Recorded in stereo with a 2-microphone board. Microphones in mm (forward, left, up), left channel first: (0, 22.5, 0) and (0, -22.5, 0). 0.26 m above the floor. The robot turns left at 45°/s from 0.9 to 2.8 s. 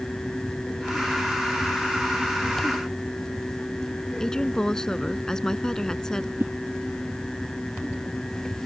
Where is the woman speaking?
15° left (ahead or behind).